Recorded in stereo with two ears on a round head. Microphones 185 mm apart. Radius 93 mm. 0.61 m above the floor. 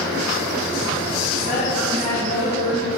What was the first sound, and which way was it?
A woman speaking, 35° left (ahead or behind).